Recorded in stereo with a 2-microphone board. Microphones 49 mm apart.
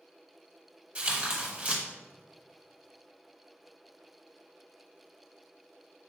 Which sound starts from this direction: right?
Tearing paper, at 0.9 s.